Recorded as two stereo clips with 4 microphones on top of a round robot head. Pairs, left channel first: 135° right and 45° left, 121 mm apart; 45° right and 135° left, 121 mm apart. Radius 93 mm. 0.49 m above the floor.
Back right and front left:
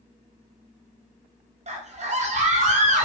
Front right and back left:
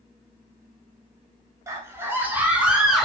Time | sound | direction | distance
1.7 | a scream | 70° left | 2.5 m